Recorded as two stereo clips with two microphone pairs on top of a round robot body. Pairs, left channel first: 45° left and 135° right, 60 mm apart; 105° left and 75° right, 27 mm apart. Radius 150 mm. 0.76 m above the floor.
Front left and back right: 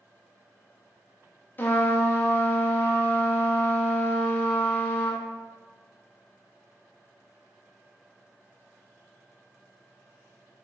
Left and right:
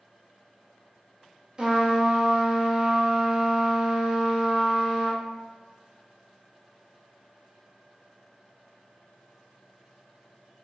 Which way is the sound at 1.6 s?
10° right.